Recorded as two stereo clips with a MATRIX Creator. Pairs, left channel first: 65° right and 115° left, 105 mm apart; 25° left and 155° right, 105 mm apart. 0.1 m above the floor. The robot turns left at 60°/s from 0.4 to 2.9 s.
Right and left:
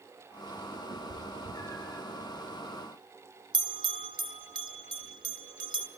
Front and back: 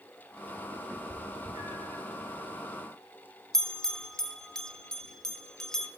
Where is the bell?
105° left, 0.8 m.